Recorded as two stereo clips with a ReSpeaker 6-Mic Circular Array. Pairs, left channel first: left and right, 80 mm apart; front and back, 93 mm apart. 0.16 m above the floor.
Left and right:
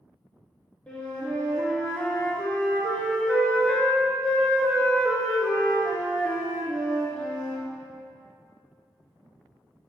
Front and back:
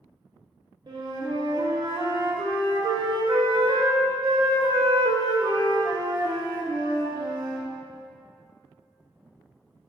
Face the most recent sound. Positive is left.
turn(degrees=160)